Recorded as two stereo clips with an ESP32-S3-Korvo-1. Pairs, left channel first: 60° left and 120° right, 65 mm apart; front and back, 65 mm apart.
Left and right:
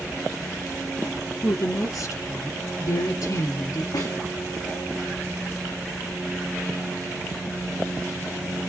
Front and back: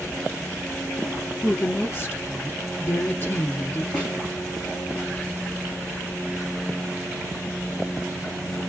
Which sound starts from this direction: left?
A snare drum, at 3.9 s.